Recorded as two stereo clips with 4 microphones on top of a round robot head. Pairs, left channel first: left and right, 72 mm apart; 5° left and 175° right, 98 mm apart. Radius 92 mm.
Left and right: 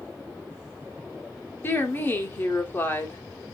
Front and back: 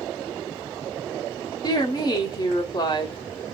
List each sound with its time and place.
1.6 s a woman speaking: 40° left, 1.4 m